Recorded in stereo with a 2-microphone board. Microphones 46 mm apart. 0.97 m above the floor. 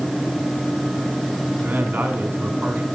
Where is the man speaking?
45° right (ahead or behind), 2 m.